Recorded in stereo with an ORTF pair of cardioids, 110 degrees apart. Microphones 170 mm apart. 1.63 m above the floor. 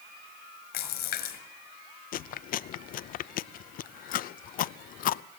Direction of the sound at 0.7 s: 70° left.